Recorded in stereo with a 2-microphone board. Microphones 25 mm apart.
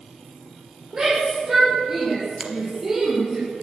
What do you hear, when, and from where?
0.9 s a shout: 20° right (ahead or behind), 7.5 m; by 3.4 s 10° right (ahead or behind), 5.5 m
2.4 s a finger snap: 20° right (ahead or behind), 2.5 m